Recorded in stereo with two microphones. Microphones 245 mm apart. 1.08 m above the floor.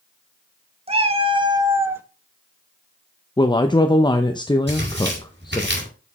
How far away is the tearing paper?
About 5 m.